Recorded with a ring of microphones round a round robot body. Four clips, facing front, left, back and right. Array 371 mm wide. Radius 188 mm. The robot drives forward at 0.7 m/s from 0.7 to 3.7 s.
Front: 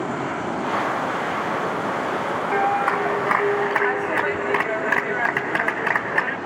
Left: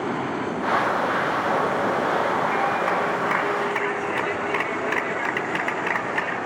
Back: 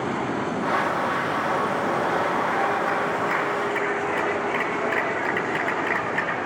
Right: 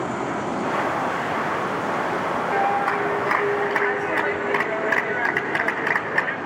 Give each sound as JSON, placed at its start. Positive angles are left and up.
{"t": 2.5, "sound": "a clap", "azimuth_deg": -15, "distance_m": 3.5}